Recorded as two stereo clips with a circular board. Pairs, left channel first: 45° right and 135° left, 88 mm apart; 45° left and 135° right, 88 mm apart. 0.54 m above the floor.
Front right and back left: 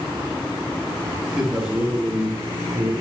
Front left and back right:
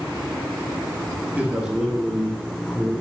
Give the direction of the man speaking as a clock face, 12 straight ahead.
5 o'clock.